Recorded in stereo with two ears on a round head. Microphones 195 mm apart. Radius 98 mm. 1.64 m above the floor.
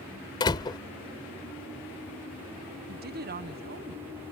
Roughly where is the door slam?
Centre.